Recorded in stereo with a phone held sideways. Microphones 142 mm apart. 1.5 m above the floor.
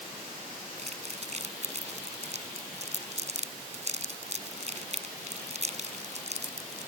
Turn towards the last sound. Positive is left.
turn(degrees=-50)  # may be behind; listen again after turning